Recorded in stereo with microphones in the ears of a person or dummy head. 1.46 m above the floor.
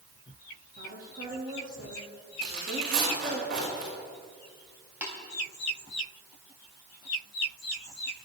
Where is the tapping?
10° right (ahead or behind), 3.5 m.